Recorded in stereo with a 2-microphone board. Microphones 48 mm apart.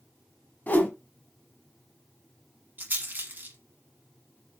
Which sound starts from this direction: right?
A rattle, at 2.8 s.